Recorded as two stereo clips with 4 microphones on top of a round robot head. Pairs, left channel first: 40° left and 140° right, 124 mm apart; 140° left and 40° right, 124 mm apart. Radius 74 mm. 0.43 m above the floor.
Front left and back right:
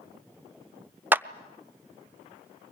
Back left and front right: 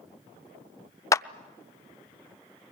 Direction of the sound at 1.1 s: 165° left.